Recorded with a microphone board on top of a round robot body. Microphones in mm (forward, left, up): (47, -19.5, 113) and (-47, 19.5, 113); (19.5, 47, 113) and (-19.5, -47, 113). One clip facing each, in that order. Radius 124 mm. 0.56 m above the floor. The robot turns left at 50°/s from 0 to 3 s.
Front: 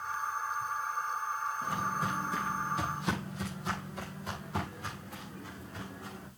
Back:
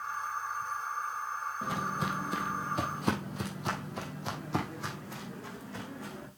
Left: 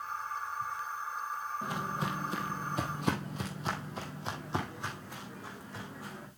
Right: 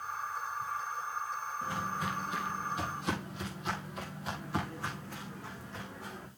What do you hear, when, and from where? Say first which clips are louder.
1.6 s footsteps: back 2 dB, right 1 dB; 145° left, 1.5 m; by 6.3 s 150° left, 3 m